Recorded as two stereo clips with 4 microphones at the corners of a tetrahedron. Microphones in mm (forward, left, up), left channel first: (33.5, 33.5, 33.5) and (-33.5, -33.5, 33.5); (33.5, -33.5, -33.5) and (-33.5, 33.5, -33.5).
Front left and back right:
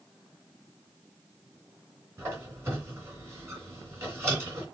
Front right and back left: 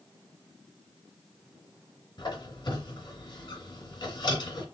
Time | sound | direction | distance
2.2 | a squeak | 75° right | 2.5 m